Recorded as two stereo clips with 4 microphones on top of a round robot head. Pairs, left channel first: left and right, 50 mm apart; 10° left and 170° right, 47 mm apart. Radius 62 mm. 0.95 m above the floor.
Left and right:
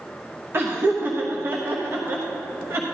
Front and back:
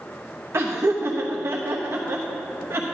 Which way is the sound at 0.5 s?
140° right.